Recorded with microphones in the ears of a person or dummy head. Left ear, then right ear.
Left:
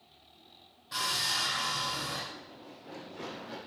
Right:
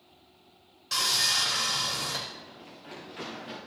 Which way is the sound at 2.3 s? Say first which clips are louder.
Right 2 dB; 75° right (ahead or behind).